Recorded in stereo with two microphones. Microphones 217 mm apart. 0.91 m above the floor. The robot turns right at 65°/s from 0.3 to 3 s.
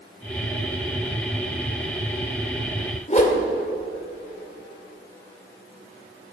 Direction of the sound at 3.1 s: 35° left (ahead or behind).